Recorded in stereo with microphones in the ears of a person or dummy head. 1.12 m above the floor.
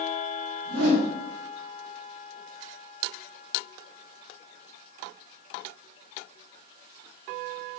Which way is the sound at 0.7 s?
80° right.